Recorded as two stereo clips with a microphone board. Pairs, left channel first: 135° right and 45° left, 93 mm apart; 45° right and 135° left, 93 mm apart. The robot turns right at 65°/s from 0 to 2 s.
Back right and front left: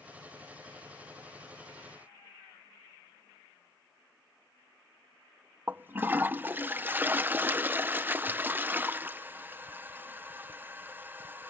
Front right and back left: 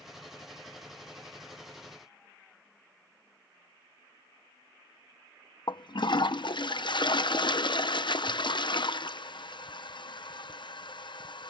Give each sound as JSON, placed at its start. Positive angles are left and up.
{"t": 5.7, "sound": "a toilet flushing", "azimuth_deg": -20}